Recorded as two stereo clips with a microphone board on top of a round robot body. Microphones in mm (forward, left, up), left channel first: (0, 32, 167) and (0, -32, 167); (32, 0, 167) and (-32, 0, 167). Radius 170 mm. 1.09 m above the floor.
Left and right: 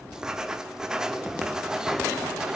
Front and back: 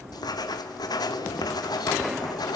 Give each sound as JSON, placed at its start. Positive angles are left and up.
{"t": 0.1, "sound": "writing", "azimuth_deg": -10, "distance_m": 2.5}